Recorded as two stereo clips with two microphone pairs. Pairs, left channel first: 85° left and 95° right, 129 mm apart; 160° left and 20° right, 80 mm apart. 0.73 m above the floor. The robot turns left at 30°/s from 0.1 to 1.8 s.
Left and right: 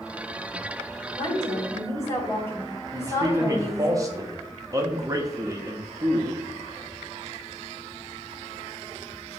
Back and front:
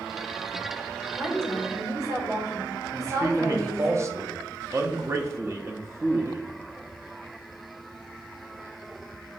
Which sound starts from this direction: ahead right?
A man speaking, at 2.9 s.